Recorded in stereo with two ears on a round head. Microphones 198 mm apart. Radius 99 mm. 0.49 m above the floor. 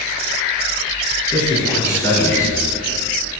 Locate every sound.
1.3 s a man speaking: 15° left (ahead or behind), 6.5 m